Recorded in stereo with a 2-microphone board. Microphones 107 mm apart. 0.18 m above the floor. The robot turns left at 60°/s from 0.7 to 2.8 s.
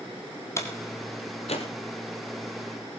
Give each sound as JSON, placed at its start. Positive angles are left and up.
{"t": 0.6, "sound": "a door slam", "side_deg": 25, "distance_m": 3.5}